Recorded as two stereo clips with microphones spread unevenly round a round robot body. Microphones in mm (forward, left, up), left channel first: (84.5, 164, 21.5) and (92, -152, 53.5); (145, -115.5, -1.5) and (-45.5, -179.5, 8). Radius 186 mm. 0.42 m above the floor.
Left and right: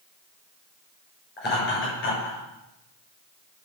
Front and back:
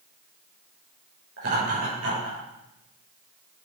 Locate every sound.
1.4 s laughter: 155° left, 7.5 m; by 2.4 s 150° left, 8 m